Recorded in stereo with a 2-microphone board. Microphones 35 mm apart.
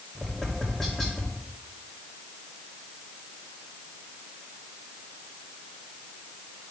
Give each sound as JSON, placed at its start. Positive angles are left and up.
{"t": 0.1, "sound": "tapping", "side_deg": 10, "distance_m": 2.5}